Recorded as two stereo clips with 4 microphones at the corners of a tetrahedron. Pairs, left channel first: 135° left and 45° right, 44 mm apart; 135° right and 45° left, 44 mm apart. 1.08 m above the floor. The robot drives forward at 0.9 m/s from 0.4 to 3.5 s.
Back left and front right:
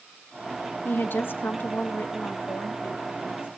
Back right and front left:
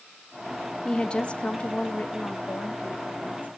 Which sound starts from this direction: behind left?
A woman speaking, at 0.8 s.